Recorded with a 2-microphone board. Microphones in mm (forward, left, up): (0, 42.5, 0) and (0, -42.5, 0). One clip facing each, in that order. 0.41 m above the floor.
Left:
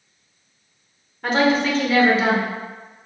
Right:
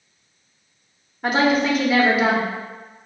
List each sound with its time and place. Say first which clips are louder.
1.2 s a woman speaking: even; 10° right (ahead or behind), 0.9 m